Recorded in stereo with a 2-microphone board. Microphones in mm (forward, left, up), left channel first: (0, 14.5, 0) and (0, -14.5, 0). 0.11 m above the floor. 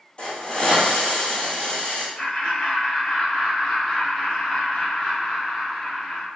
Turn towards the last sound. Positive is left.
turn(degrees=25)  # may be behind; listen again after turning